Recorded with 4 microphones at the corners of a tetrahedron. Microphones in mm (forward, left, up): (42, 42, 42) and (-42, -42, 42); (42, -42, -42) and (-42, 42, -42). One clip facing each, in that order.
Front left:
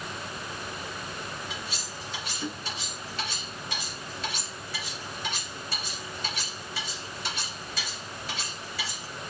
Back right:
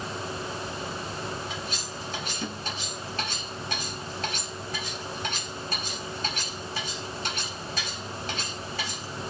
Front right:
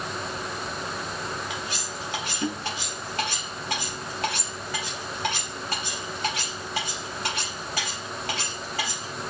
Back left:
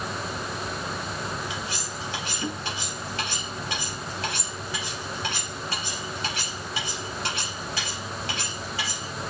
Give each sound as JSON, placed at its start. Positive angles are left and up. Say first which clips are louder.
{"t": 1.5, "sound": "cutlery clinking", "louder": "back right 3 dB, even", "azimuth_deg": -90, "distance_m": 3.0}